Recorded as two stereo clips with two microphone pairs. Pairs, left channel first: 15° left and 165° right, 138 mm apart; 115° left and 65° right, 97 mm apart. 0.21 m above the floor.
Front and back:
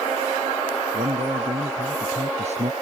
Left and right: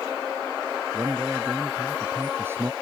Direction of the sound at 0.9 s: 130° right.